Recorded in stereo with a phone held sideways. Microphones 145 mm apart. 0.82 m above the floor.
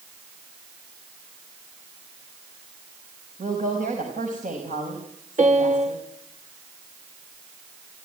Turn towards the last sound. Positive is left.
turn(degrees=-55)  # may be behind; listen again after turning